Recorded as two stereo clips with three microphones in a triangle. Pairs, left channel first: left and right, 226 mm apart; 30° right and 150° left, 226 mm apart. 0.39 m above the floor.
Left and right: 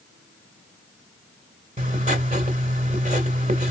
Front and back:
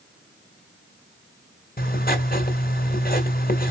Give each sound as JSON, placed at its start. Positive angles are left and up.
{"t": 1.8, "sound": "writing", "azimuth_deg": -50, "distance_m": 1.9}